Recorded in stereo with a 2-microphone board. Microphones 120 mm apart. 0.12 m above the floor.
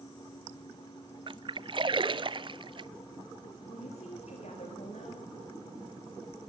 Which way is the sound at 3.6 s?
60° left (ahead or behind).